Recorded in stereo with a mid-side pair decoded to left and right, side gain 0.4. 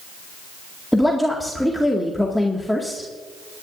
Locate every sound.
0.9 s a woman speaking: 5° left, 2 m